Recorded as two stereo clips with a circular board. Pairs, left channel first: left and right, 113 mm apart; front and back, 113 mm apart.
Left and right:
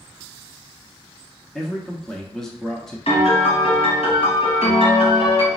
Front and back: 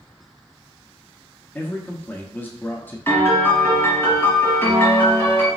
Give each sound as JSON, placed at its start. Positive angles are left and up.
{"t": 1.6, "sound": "a man speaking", "azimuth_deg": 15, "distance_m": 0.6}
{"t": 3.1, "sound": "a piano", "azimuth_deg": 70, "distance_m": 1.7}